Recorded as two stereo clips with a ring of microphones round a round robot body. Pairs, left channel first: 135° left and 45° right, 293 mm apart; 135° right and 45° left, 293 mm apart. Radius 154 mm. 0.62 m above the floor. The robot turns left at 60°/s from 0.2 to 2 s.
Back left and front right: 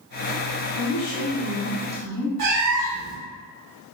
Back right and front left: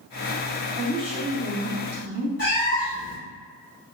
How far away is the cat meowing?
About 1.6 m.